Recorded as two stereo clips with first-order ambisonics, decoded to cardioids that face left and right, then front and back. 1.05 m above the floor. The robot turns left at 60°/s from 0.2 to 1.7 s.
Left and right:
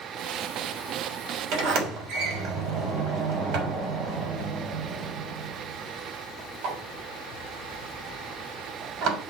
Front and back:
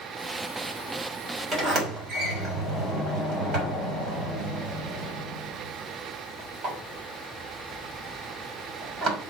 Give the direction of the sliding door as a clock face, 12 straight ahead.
4 o'clock.